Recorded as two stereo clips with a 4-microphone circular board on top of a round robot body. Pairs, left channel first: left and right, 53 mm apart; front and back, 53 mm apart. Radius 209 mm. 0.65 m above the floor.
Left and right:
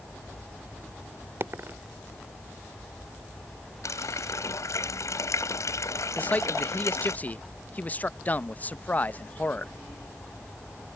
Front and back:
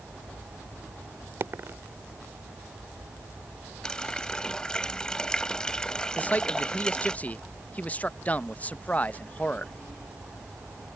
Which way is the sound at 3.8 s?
75° left.